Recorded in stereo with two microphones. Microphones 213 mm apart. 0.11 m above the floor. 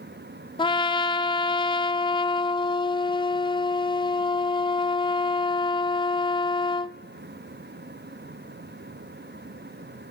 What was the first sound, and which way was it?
A trumpet, 25° left (ahead or behind).